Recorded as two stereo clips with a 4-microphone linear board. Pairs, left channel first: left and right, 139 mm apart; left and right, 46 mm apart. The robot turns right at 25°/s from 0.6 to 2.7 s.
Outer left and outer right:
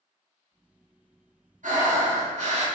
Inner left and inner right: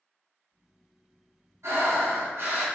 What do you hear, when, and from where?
1.6 s breathing: 70° right (ahead or behind), 0.8 m; by 2.7 s 55° right (ahead or behind), 0.8 m